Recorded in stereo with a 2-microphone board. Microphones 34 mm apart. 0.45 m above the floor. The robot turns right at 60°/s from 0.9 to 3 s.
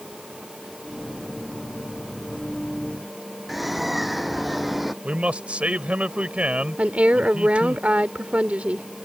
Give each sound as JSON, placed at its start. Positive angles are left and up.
{"t": 3.5, "sound": "a bird", "side_deg": -5}
{"t": 5.0, "sound": "a man speaking", "side_deg": -40}
{"t": 6.8, "sound": "a woman speaking", "side_deg": -40}